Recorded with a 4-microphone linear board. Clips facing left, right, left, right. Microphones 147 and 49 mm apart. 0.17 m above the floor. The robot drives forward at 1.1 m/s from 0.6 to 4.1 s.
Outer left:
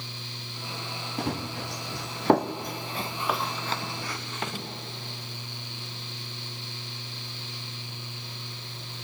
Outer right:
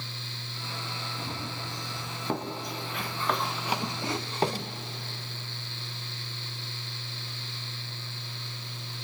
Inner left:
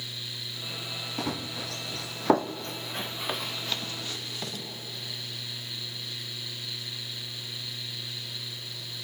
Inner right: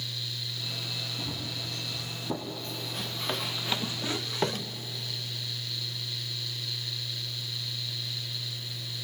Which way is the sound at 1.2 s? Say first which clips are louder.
Outer left 10 dB, inner left 4 dB; 80° left.